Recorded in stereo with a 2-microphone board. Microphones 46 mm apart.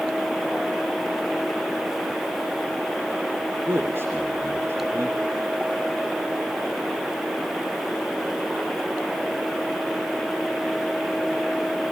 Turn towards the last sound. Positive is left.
turn(degrees=-65)  # may be behind; listen again after turning